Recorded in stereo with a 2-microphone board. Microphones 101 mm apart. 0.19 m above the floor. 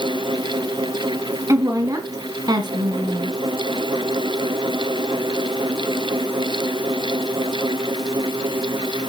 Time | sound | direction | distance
1.5 | a woman speaking | 30° right (ahead or behind) | 1.9 m